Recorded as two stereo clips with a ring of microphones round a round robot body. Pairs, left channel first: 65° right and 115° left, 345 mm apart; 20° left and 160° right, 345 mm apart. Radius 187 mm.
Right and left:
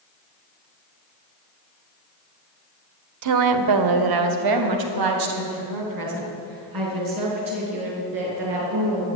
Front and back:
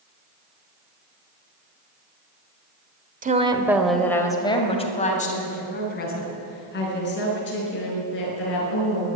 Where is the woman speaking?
140° left, 1.3 m; by 9.1 s 80° left, 7 m.